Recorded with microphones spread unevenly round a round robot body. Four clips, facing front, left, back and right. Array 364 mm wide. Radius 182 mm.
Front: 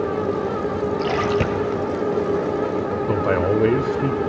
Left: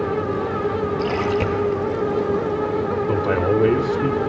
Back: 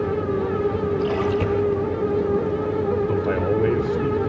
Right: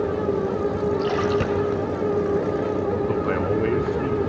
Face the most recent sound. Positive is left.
turn(degrees=30)